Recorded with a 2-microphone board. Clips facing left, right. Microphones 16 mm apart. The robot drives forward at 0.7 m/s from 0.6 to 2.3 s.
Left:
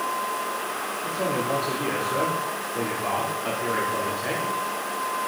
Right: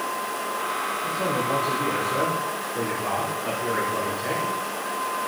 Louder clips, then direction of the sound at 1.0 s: Left 1 dB; 80° left.